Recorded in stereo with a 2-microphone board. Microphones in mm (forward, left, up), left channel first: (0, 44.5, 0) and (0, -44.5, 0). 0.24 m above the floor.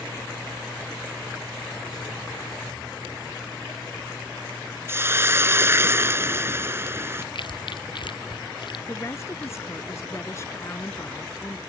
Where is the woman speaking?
35° left (ahead or behind).